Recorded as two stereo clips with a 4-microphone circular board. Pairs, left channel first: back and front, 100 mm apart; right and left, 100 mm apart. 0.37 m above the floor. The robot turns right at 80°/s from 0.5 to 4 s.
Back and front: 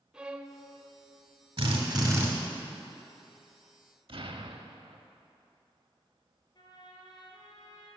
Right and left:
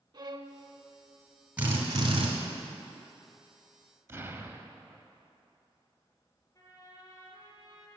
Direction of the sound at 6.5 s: 145° right.